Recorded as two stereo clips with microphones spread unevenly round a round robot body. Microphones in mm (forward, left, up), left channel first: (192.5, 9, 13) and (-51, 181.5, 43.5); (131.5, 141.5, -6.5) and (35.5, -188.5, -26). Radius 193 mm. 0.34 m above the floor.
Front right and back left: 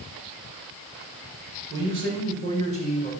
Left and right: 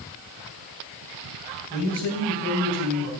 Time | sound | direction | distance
1.7 | a man speaking | 170° right | 1.7 m